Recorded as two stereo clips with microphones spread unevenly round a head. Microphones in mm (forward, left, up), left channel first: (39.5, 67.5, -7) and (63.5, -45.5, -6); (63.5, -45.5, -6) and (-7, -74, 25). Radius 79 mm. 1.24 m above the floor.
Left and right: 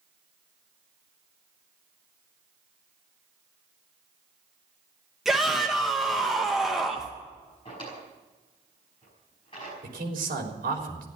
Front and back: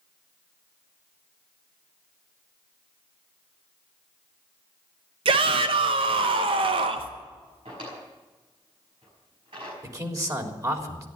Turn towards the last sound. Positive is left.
turn(degrees=-115)